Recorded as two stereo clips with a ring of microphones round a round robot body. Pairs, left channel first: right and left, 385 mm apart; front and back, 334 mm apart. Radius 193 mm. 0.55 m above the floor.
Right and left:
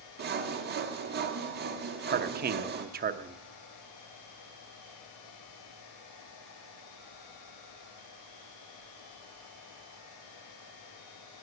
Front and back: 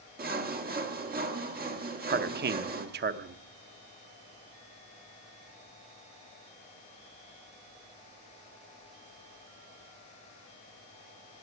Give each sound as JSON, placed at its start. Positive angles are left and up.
{"t": 0.2, "sound": "sawing", "azimuth_deg": 135, "distance_m": 1.3}
{"t": 2.1, "sound": "a man speaking", "azimuth_deg": 140, "distance_m": 0.7}